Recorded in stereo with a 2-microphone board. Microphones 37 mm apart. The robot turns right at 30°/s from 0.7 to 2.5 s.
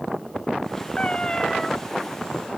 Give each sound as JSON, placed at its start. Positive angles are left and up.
{"t": 1.0, "sound": "a cat meowing", "side_deg": 30}